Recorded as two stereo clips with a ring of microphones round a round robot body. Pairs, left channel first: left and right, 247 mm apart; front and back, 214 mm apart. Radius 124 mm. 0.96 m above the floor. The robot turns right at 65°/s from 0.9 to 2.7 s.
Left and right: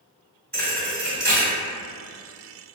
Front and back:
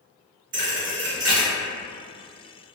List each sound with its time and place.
0.5 s a thud: 175° left, 1.5 m; by 1.5 s 150° right, 1.5 m